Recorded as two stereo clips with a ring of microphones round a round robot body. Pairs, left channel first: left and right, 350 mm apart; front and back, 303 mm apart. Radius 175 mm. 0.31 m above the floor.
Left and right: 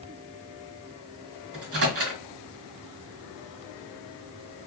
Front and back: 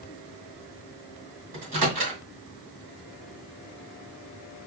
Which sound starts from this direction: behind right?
A microwave, at 1.5 s.